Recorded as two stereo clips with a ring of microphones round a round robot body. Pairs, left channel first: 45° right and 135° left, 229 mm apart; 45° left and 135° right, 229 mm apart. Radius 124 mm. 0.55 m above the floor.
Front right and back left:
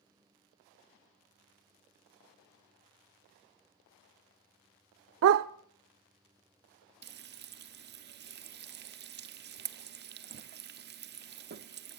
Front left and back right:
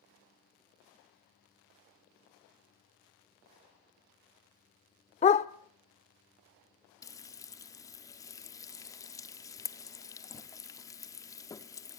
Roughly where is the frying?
Behind left.